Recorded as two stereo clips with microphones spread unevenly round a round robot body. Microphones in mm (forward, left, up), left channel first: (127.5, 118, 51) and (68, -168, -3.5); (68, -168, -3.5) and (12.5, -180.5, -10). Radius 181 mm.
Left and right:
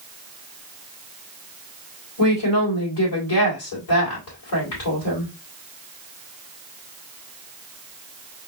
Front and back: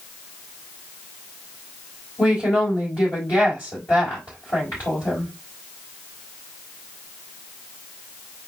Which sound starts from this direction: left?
A woman speaking, at 2.2 s.